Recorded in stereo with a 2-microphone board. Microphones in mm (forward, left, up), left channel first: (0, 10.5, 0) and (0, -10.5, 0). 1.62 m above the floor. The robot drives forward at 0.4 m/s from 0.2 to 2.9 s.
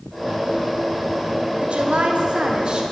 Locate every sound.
1.6 s a woman speaking: 50° right (ahead or behind), 0.6 m; by 2.8 s 40° right (ahead or behind), 0.8 m